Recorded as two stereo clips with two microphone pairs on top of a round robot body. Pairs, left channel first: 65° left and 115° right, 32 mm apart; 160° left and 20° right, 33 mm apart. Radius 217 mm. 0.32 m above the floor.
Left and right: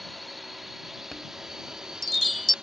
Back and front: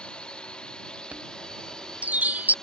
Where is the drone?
160° left; by 2.6 s 140° right.